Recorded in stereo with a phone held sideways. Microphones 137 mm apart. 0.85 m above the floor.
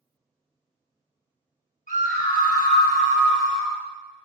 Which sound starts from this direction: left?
A scream, at 1.9 s.